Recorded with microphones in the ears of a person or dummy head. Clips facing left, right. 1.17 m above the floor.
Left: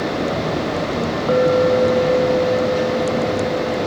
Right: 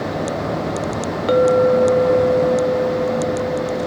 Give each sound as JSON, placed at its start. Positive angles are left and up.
{"t": 1.3, "sound": "a clink", "side_deg": -25, "distance_m": 1.0}